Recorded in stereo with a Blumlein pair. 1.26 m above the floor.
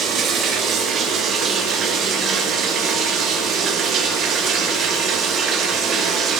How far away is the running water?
About 1.0 m.